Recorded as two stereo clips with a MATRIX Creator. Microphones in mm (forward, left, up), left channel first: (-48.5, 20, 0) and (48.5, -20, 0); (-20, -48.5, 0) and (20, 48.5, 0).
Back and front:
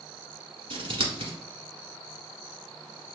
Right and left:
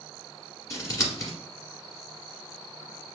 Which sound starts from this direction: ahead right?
Scissors, at 0.7 s.